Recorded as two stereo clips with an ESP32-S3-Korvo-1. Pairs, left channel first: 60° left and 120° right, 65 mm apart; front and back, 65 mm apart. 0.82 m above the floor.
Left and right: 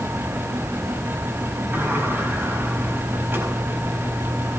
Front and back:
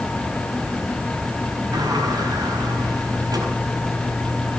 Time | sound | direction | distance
1.7 | a sliding door | straight behind | 4.5 m